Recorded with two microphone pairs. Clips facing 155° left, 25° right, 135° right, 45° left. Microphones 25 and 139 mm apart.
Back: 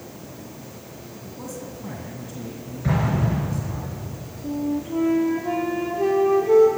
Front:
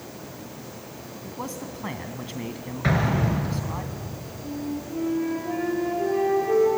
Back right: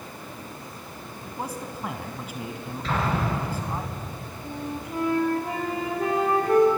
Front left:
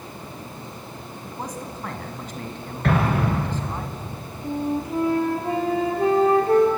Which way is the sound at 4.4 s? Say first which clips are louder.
Back 6 dB, front left 9 dB; 105° left.